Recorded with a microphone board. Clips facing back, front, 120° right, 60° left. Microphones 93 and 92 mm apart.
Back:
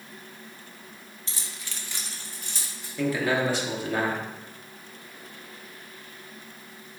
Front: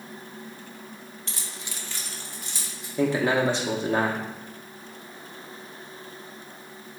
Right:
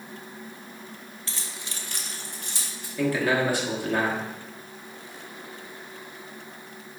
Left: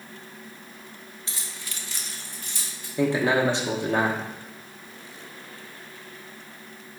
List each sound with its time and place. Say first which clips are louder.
1.3 s keys jangling: front 1 dB, right 1 dB; 10° right, 0.7 m; by 2.9 s 145° right, 1.7 m
3.0 s a man speaking: front 3 dB, left 2 dB; 30° left, 0.7 m